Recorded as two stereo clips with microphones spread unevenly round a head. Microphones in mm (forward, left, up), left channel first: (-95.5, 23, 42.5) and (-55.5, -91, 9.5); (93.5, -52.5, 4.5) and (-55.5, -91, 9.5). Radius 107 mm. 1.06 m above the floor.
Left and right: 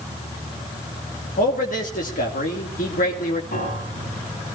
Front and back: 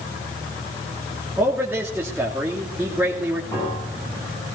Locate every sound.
1.4 s a man speaking: 110° left, 2.5 m
3.5 s a piano: 95° left, 7.5 m